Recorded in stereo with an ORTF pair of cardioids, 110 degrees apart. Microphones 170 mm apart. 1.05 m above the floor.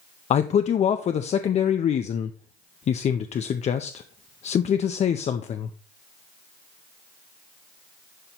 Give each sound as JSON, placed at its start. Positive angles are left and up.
{"t": 0.3, "sound": "a man speaking", "azimuth_deg": 40, "distance_m": 0.6}